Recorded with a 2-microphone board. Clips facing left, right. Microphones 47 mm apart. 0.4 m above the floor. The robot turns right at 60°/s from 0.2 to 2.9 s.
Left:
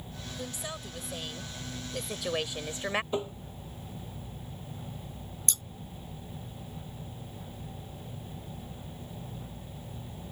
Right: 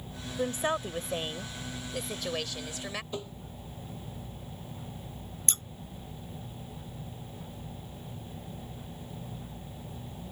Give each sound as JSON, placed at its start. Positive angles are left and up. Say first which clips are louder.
{"t": 0.4, "sound": "a woman speaking", "louder": "right 11 dB", "azimuth_deg": -100}
{"t": 3.1, "sound": "tapping", "louder": "left 6 dB", "side_deg": 30}
{"t": 5.5, "sound": "scissors", "louder": "right 2 dB", "side_deg": -45}